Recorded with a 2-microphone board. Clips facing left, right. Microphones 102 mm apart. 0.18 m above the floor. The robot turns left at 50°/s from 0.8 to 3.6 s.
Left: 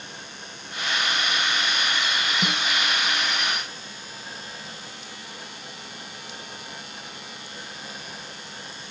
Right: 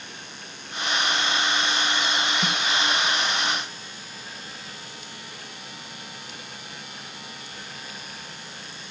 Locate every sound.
2.4 s a snare drum: 60° left (ahead or behind), 3.5 m; by 2.6 s 55° left (ahead or behind), 3.5 m